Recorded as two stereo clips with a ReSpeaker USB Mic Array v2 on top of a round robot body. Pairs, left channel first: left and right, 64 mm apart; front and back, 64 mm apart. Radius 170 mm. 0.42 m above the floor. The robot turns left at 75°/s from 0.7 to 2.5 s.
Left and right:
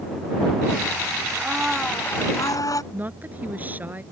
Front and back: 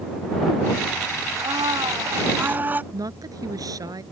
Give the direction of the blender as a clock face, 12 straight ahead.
5 o'clock.